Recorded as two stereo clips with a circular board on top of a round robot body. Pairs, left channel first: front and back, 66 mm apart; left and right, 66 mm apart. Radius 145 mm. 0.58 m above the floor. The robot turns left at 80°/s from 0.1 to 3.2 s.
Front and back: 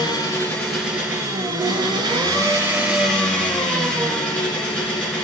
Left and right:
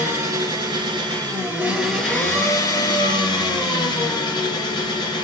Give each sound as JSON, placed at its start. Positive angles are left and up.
{"t": 0.0, "sound": "an engine running", "azimuth_deg": -35, "distance_m": 4.0}